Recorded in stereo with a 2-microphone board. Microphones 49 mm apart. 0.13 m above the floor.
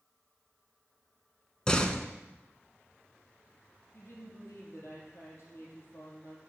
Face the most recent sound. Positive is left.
turn(degrees=70)  # may be behind; listen again after turning